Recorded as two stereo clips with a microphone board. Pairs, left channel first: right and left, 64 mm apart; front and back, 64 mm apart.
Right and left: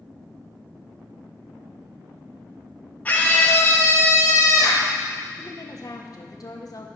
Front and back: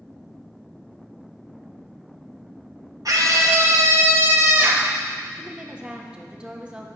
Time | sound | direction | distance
3.0 | a scream | 155° right | 2 m
5.4 | a woman speaking | 105° right | 1.3 m